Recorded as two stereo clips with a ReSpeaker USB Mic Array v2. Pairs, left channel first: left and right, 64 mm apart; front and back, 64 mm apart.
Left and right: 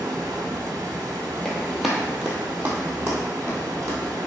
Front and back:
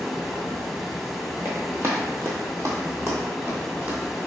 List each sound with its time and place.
0.0 s running water: 95° right, 0.8 m
1.4 s running footsteps: 165° left, 1.2 m; by 4.0 s 125° right, 1.8 m